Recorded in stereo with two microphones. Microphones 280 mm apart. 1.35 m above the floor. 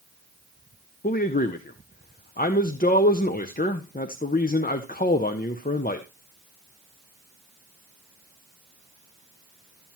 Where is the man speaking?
30° left (ahead or behind), 0.6 m.